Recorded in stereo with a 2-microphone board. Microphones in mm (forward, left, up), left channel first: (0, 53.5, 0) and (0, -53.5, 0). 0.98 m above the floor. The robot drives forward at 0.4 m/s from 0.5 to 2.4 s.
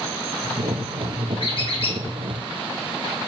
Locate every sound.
1.4 s a squeak: 55° left (ahead or behind), 1.1 m; by 2.0 s 60° left (ahead or behind), 1.0 m